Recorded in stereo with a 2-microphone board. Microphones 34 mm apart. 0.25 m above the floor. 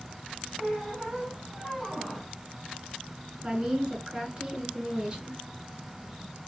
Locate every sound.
0.6 s a squeak: centre (ahead or behind), 1.8 m
3.4 s a woman speaking: 25° right (ahead or behind), 1.6 m